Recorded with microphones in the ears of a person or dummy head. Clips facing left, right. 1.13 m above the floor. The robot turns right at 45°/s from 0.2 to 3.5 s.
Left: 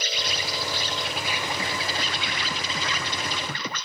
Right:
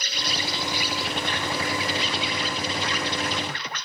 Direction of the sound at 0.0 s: 40° right.